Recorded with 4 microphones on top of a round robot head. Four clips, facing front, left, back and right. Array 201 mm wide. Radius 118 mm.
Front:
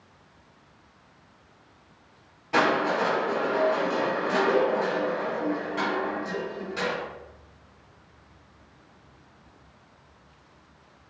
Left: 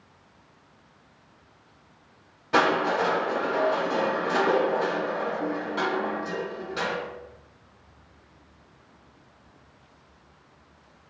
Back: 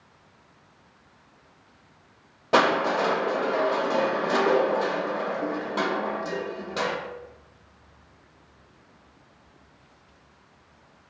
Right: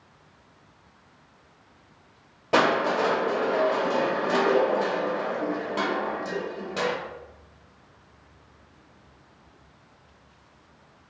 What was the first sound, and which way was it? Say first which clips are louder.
Crushing: right 1 dB, back 2 dB; 145° right.